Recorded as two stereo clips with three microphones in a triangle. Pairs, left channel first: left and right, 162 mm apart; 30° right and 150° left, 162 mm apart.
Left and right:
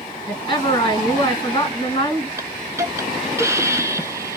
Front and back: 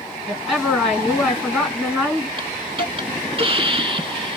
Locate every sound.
0.3 s a woman speaking: 60° left, 1.9 m
2.4 s a hiss: 160° right, 0.5 m